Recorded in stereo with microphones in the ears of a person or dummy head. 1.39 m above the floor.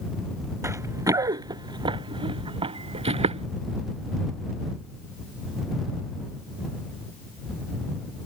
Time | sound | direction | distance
0.6 | running footsteps | 10° right (ahead or behind) | ?